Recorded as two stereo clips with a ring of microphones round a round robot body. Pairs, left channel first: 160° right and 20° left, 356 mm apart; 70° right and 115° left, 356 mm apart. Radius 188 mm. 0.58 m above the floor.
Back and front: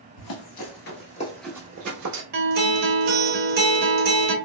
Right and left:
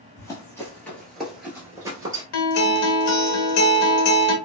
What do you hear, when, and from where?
0.2 s running footsteps: 145° right, 0.8 m; by 2.2 s 40° left, 0.6 m
2.3 s a guitar: 45° right, 0.8 m